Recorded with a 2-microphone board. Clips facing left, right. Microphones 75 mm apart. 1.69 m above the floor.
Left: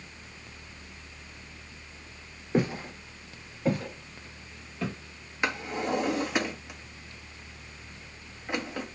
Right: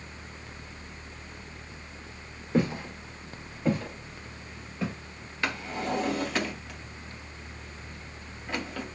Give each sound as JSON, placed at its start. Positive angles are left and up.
{"t": 2.5, "sound": "footsteps", "side_deg": 15, "distance_m": 1.7}
{"t": 5.4, "sound": "a drawer", "side_deg": 15, "distance_m": 1.1}